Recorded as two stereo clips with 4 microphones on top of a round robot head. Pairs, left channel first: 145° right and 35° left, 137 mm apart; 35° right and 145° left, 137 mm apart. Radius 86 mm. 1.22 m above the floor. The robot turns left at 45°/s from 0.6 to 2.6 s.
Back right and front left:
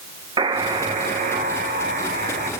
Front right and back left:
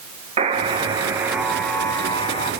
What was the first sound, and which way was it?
A buzzer, 95° left.